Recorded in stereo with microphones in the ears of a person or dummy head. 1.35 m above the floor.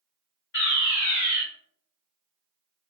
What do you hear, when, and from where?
0.5 s a fire alarm: 45° left (ahead or behind), 1.4 m